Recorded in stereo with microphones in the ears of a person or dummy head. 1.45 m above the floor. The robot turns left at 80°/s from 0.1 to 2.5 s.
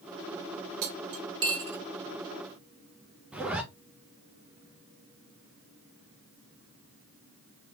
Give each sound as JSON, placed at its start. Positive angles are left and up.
{"t": 0.8, "sound": "cutlery clinking", "side_deg": -40, "distance_m": 0.7}
{"t": 3.3, "sound": "a zipper", "side_deg": -5, "distance_m": 0.9}